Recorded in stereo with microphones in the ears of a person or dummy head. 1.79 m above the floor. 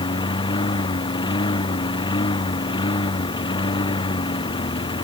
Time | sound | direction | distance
0.0 | a lawn mower | 30° left (ahead or behind) | ?